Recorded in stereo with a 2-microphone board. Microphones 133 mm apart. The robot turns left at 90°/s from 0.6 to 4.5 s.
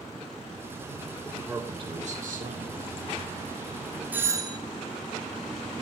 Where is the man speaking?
10° left, 4.5 m; by 2.9 s 135° right, 4.5 m.